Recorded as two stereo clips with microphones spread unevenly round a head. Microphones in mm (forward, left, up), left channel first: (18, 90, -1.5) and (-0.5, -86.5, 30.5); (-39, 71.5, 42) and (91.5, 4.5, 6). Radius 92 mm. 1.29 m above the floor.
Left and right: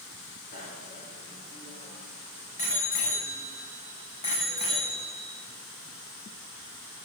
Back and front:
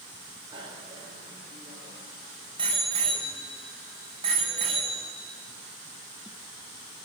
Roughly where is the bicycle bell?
Ahead left.